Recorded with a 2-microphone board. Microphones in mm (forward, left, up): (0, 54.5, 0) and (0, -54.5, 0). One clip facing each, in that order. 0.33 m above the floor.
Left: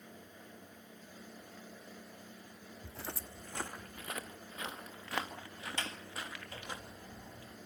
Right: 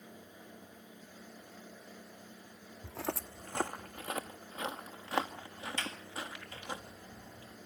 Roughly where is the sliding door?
Left.